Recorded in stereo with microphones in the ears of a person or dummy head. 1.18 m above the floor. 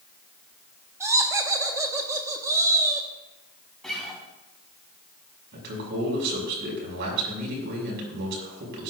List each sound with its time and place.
1.0 s laughter: 20° right (ahead or behind), 1.2 m
3.8 s a guitar: 5° left (ahead or behind), 3.5 m
5.5 s a man speaking: 60° right (ahead or behind), 5.5 m